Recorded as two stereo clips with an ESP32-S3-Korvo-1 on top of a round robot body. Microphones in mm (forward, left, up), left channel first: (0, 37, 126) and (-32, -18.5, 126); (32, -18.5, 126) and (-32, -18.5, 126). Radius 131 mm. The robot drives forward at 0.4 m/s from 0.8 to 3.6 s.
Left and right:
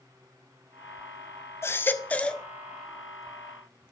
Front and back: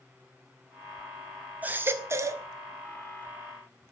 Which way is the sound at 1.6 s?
110° left.